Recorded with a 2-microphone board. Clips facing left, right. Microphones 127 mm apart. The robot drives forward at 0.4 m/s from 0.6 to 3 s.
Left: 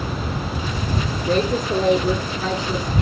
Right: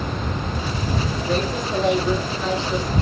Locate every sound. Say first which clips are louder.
1.3 s a woman speaking: left 5 dB; 40° left (ahead or behind), 6.5 m; by 2.9 s 45° left (ahead or behind), 6 m